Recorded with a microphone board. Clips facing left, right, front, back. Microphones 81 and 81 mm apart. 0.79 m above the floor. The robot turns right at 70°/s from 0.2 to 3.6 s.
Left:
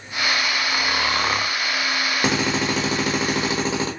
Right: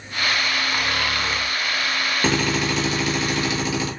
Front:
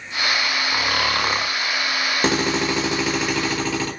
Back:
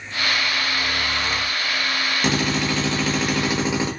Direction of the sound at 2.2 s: 25° left.